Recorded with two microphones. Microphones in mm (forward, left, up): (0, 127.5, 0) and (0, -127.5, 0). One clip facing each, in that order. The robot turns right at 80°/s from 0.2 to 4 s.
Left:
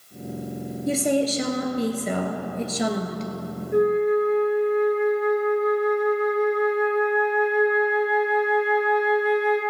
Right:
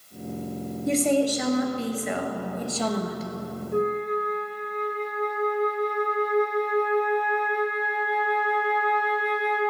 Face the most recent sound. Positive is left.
turn(degrees=5)  # may be behind; listen again after turning